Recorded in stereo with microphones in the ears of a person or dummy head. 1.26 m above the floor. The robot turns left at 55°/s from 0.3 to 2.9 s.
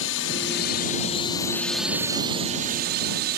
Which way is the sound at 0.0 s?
80° left.